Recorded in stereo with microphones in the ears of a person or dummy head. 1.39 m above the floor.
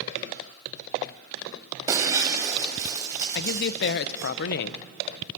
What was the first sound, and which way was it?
Breaking glass, 20° right (ahead or behind).